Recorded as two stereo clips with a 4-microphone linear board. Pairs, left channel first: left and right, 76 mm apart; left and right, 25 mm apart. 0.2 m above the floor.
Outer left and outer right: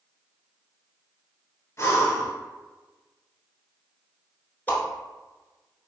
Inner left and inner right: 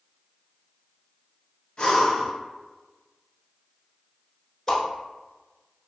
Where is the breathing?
35° left (ahead or behind), 1.2 m.